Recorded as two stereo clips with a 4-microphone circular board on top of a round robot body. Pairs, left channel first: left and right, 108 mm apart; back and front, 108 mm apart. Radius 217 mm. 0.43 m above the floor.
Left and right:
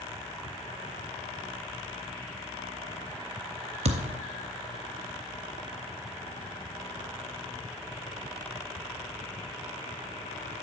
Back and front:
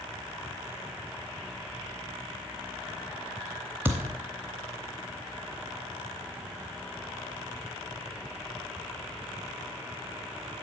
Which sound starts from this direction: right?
A thud, at 3.9 s.